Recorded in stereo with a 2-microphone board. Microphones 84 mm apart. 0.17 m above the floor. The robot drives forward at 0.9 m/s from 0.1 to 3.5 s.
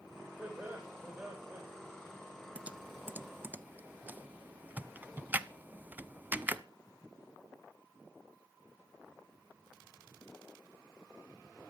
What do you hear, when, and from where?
0.4 s laughter: 20° right (ahead or behind), 7 m
2.5 s typing on a keyboard: 15° right (ahead or behind), 0.9 m; by 6.6 s 20° right (ahead or behind), 0.6 m